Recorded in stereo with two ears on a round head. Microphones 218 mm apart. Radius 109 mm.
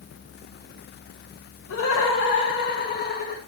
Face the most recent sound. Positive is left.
turn(degrees=35)  # may be behind; listen again after turning